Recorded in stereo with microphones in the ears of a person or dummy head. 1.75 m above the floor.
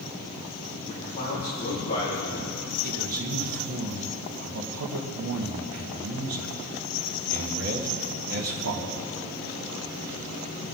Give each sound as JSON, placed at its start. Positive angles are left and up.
{"t": 0.9, "sound": "a man speaking", "side_deg": 40, "distance_m": 3.0}
{"t": 2.8, "sound": "a man speaking", "side_deg": -70, "distance_m": 1.5}